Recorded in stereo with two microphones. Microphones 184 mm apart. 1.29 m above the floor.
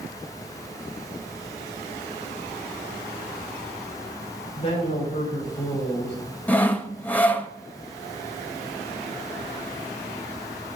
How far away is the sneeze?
I don't hear a sneeze.